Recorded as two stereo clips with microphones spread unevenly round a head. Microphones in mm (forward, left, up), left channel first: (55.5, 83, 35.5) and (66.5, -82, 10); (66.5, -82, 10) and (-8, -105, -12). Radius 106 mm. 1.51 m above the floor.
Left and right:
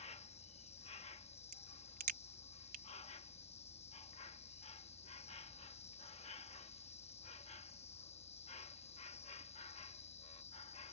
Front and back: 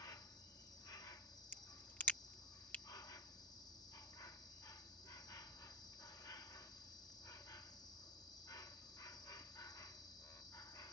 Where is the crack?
55° right.